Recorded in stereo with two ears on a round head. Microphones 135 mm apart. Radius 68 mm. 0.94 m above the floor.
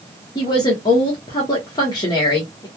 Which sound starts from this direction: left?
A woman speaking, at 0.3 s.